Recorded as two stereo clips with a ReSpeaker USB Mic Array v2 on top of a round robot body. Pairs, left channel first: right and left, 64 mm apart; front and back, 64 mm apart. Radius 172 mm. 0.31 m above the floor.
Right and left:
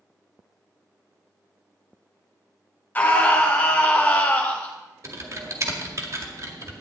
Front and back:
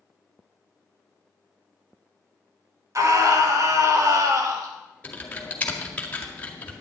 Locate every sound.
3.0 s a scream: 150° right, 2.5 m
5.0 s typing on a keyboard: 65° left, 2.0 m